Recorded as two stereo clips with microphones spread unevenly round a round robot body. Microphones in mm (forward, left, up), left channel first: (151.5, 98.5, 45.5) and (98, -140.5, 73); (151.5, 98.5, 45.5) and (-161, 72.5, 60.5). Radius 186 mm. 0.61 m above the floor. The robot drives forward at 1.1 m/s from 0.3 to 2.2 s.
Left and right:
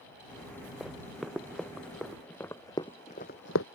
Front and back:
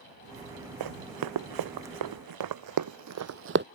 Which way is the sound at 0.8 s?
170° left.